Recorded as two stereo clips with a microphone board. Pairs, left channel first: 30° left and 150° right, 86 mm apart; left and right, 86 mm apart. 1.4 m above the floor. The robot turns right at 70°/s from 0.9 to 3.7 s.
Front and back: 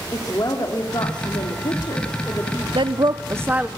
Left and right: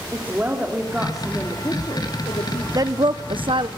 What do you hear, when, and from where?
0.1 s a woman speaking: 15° right, 3.5 m; by 2.6 s 105° left, 3.5 m
2.8 s a woman speaking: 135° right, 0.9 m; by 3.7 s 70° right, 0.9 m